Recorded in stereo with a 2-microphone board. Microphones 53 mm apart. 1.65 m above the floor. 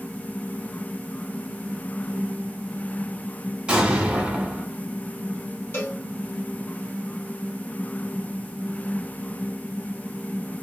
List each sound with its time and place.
3.7 s an explosion: 25° right (ahead or behind), 1.5 m
5.7 s a cowbell: 45° left (ahead or behind), 2 m